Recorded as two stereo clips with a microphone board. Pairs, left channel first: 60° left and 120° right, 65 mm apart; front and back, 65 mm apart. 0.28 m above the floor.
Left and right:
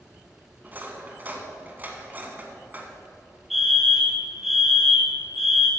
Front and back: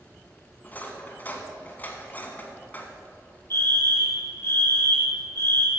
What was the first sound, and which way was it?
Cutlery clinking, 60° right.